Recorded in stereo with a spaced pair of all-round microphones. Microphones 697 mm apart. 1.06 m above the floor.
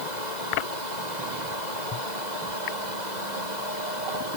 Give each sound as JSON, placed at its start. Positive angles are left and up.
{"t": 0.0, "sound": "a fan", "side_deg": -80}